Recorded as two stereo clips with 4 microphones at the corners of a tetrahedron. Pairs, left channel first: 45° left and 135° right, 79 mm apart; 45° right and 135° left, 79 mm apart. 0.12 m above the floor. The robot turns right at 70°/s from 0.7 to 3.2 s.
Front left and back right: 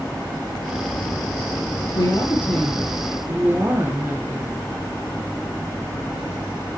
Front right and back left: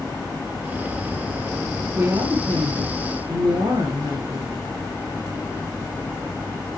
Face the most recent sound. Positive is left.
turn(degrees=160)